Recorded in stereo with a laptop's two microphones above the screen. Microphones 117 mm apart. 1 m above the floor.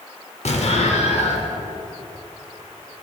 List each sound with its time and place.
0.5 s an explosion: 65° left (ahead or behind), 1.2 m